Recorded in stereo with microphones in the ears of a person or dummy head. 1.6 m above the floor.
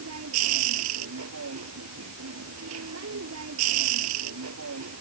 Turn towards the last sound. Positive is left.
turn(degrees=-85)